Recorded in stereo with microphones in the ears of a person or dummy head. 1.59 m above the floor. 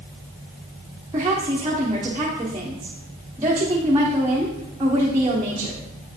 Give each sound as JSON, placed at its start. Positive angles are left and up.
{"t": 1.1, "sound": "a woman speaking", "side_deg": -15, "distance_m": 1.0}